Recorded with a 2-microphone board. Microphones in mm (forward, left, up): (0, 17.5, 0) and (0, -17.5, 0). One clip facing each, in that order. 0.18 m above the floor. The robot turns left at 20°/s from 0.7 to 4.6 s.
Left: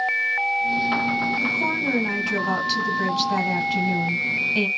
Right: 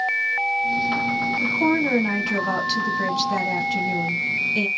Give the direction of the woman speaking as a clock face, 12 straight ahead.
5 o'clock.